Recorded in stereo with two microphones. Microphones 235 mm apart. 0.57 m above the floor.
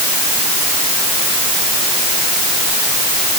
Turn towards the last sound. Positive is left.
No sound to turn to.